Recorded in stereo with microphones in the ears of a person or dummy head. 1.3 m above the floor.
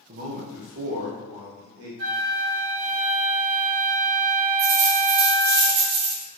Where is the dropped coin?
40° right (ahead or behind), 0.9 m.